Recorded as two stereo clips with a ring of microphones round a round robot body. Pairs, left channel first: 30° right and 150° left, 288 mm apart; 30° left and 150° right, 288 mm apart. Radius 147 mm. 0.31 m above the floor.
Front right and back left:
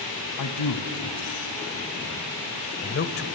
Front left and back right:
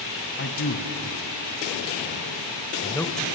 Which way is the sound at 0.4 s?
20° right.